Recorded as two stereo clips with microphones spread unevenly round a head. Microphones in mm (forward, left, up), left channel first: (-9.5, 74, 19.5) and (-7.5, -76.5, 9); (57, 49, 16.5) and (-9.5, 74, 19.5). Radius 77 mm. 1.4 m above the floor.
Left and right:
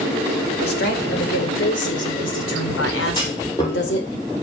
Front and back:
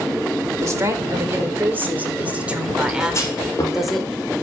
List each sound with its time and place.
0.6 s a woman speaking: 110° left, 4.5 m; by 4.2 s 70° left, 4.5 m
3.1 s a clunk: 25° left, 6 m